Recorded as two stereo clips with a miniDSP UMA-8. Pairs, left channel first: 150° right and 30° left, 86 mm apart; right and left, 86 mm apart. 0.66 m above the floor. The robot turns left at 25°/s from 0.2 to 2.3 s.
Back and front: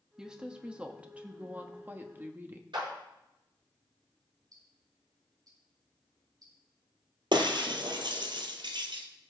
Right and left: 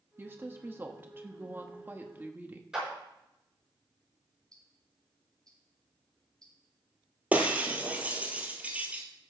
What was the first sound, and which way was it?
A woman speaking, 105° left.